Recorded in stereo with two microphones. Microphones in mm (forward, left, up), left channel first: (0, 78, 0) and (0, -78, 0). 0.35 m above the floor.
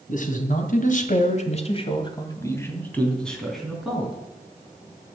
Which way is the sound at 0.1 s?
60° left (ahead or behind).